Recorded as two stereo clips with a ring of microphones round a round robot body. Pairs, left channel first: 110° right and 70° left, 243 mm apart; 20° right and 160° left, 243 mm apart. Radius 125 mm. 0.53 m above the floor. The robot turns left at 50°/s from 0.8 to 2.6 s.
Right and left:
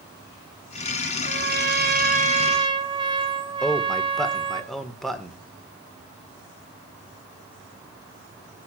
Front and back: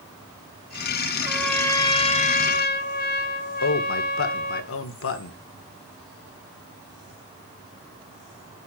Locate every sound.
1.2 s a trumpet: 75° left, 1.4 m; by 4.6 s 5° left, 1.4 m
3.6 s a man speaking: 25° right, 1.7 m